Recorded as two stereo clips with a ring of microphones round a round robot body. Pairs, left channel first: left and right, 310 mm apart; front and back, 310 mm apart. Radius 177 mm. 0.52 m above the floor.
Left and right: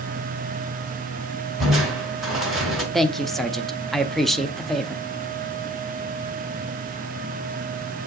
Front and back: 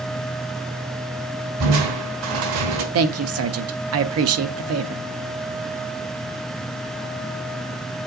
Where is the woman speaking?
Straight behind, 0.8 m.